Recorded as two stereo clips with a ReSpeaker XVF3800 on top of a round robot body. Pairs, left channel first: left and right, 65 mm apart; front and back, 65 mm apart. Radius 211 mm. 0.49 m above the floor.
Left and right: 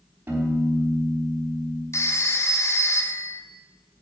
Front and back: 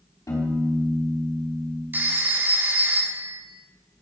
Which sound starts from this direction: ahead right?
A piano, at 0.3 s.